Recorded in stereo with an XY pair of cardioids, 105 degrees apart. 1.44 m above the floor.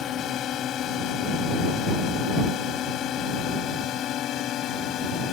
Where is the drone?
70° left; by 5.3 s 75° left.